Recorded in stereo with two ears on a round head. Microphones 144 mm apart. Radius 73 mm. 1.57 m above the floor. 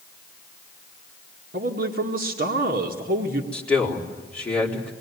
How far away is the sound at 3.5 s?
About 4 m.